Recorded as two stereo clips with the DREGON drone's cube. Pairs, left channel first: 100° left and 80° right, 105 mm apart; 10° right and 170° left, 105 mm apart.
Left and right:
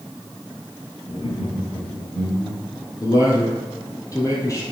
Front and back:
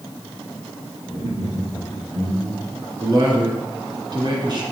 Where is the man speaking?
145° left, 2 m.